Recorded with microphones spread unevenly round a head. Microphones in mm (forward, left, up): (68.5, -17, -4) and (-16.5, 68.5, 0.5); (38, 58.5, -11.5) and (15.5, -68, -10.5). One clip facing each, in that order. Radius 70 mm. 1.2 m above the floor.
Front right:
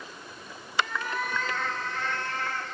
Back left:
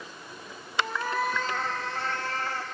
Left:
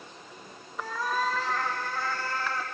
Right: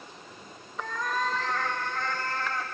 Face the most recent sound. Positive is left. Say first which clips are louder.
# back left 2 dB, left 1 dB
turn(degrees=160)